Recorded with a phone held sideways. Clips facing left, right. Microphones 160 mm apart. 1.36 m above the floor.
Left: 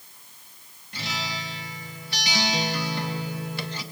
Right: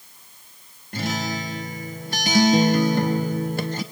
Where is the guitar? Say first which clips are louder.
Right 8 dB; 50° right (ahead or behind), 1.2 m.